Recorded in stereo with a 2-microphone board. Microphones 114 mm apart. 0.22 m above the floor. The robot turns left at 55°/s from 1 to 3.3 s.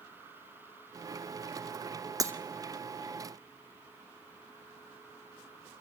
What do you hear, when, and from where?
2.2 s breaking glass: 30° right (ahead or behind), 1.3 m; by 2.3 s 25° right (ahead or behind), 1.3 m